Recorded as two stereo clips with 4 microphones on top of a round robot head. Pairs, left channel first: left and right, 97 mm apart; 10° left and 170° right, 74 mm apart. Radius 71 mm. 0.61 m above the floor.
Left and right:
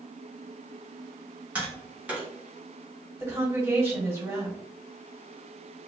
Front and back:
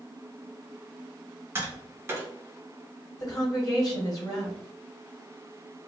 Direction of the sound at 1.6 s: 150° right.